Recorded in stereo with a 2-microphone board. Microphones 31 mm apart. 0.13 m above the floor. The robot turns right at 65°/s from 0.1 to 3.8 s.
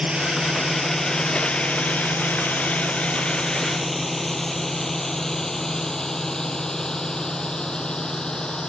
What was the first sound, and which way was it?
A drone, 30° right (ahead or behind).